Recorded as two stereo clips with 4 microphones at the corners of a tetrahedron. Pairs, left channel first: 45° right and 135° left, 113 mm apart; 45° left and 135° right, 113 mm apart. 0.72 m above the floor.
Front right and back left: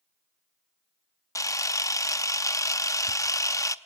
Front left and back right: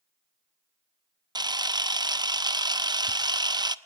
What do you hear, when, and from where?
1.4 s a camera shutter: 95° right, 0.7 m